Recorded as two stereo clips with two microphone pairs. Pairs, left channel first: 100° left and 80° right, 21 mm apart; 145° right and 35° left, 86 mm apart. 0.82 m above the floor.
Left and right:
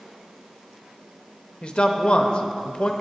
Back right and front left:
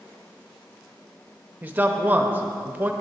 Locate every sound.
1.6 s a man speaking: 95° left, 0.8 m